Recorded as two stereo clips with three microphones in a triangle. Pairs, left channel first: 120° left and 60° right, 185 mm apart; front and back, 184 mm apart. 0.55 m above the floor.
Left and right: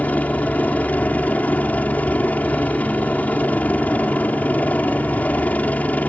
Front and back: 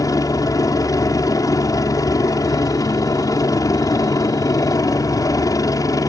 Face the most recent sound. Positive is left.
turn(degrees=50)